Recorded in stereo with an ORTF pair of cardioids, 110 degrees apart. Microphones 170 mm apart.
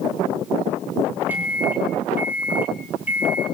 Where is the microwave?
10° right, 8 m.